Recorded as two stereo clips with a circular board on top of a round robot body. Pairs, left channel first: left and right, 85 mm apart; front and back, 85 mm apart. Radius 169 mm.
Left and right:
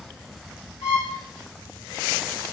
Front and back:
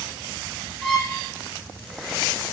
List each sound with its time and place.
0.8 s a violin: 80° left, 2.5 m